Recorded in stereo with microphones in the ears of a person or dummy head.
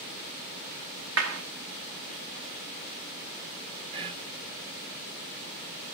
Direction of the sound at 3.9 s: 25° right (ahead or behind).